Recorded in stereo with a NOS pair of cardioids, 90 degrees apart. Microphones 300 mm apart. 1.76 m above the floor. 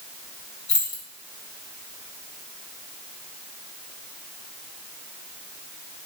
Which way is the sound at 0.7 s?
70° left.